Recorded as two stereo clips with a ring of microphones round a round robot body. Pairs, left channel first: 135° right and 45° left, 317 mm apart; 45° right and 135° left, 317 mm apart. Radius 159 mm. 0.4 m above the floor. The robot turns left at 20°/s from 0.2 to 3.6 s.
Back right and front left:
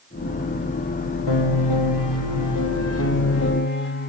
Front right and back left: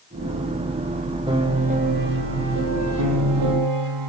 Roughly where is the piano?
Behind right.